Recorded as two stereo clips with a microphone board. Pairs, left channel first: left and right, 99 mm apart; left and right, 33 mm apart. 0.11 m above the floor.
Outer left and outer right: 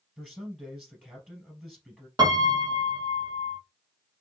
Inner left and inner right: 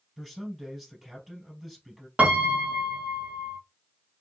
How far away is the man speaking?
About 2.5 m.